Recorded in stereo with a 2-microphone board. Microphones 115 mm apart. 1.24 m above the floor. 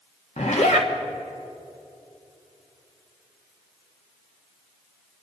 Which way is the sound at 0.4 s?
75° left (ahead or behind).